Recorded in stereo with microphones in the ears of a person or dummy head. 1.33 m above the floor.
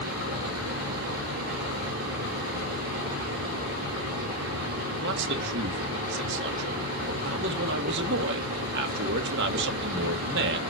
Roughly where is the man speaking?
Right.